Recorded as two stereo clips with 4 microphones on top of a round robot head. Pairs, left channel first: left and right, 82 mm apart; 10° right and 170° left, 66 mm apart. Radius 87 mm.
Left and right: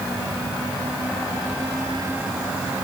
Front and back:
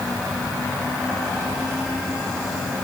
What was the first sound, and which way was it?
Only background noise.